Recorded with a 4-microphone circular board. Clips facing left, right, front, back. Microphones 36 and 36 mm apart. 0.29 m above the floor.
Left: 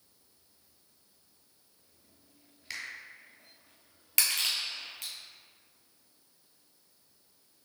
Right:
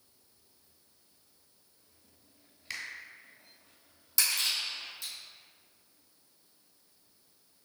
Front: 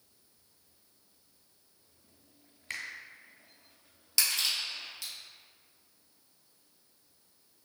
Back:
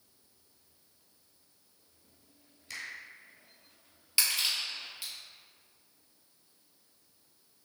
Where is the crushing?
115° left, 1.9 m.